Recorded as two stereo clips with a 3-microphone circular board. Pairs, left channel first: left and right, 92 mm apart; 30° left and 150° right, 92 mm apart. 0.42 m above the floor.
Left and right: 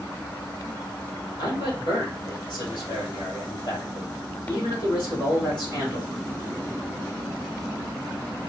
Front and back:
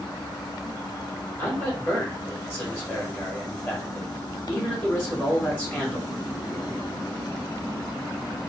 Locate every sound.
1.4 s a man speaking: 90° left, 1.9 m